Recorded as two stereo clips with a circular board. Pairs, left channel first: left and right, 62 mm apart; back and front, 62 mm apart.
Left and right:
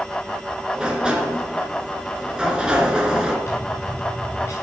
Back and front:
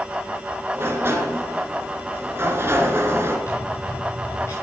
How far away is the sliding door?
About 2 m.